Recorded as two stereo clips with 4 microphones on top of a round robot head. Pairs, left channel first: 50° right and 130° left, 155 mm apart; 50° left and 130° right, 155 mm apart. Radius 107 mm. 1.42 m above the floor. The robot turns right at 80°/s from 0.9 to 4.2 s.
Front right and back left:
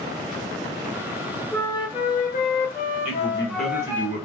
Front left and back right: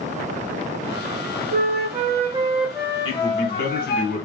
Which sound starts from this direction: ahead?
A man speaking, at 3.0 s.